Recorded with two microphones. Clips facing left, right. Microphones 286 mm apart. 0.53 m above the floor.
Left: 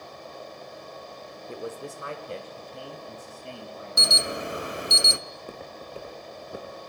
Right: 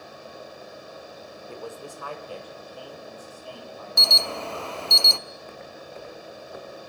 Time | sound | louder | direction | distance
1.5 | a man speaking | left 3 dB | 20° left (ahead or behind) | 1.1 m
4.0 | an alarm | left 2 dB | 20° left (ahead or behind) | 0.6 m
5.3 | footsteps | left 1 dB | 45° left (ahead or behind) | 3 m